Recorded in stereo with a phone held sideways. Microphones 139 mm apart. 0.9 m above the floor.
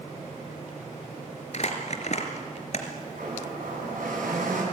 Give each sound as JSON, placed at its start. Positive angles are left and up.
{"t": 1.5, "sound": "crumpling", "side_deg": 55, "distance_m": 3.0}
{"t": 3.1, "sound": "a blender", "side_deg": -85, "distance_m": 7.5}